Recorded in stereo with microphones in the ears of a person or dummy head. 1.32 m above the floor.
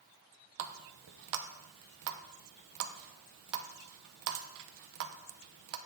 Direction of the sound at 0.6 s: 60° right (ahead or behind).